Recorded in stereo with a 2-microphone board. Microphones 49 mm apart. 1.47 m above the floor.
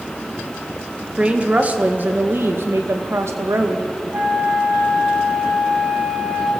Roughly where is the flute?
Right.